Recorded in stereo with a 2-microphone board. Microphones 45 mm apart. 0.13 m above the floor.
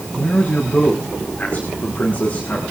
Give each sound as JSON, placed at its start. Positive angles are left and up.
{"t": 0.1, "sound": "a man speaking", "side_deg": 30, "distance_m": 6.0}